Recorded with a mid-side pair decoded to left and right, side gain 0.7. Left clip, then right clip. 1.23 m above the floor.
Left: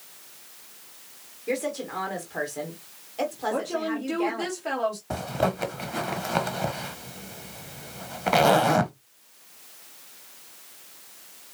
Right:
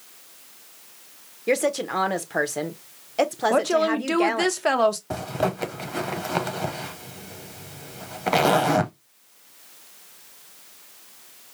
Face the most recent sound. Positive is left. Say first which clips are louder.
# right 1 dB
turn(degrees=-5)